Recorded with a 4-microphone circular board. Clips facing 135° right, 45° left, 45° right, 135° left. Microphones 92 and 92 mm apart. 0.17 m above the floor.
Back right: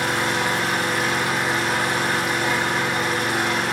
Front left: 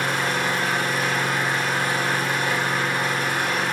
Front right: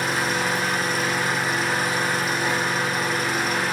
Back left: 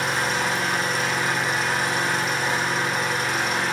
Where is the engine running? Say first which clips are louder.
Back right 1 dB, even; 135° right, 5 m.